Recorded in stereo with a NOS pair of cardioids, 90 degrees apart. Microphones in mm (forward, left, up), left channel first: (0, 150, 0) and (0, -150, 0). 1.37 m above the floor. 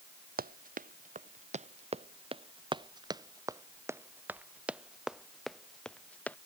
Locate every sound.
0.4 s running footsteps: 30° right; by 6.4 s 5° left